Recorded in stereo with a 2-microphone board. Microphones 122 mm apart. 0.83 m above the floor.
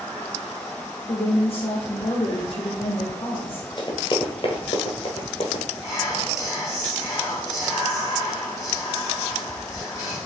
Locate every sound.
1.1 s a woman speaking: 45° left (ahead or behind), 1.0 m
3.8 s running footsteps: 35° left (ahead or behind), 1.0 m; by 5.6 s 50° left (ahead or behind), 1.5 m
5.8 s whispering: 25° left (ahead or behind), 2 m